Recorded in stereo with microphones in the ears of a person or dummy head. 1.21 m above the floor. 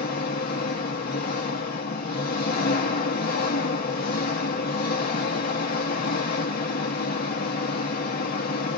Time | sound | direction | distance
0.0 | an engine running | 45° left (ahead or behind) | 0.8 m